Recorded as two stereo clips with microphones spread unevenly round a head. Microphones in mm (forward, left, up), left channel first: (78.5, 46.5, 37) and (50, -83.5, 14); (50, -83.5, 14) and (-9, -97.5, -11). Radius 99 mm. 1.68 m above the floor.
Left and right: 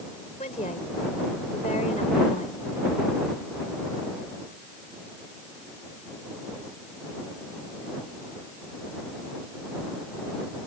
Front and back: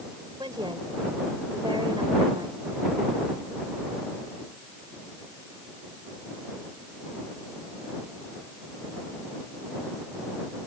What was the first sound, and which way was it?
A woman speaking, 135° left.